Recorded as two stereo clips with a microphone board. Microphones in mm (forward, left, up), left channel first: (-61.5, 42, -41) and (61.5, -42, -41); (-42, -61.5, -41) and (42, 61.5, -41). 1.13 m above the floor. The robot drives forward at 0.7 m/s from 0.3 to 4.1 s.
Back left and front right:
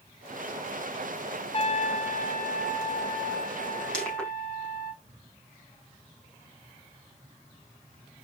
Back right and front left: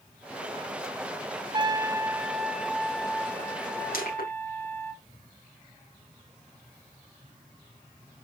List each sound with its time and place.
1.5 s a trumpet: 105° left, 0.8 m; by 4.9 s 160° left, 2 m
3.9 s crushing: 130° right, 6.5 m